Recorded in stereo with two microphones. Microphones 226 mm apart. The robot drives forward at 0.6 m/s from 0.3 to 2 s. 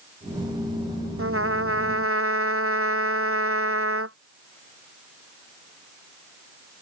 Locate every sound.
1.2 s a trumpet: 80° right